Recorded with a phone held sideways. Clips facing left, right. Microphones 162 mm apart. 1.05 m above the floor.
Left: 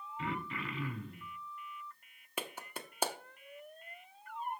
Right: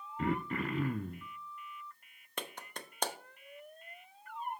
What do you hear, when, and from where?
0.2 s throat clearing: 50° right (ahead or behind), 0.6 m
2.4 s a clap: 5° left (ahead or behind), 0.9 m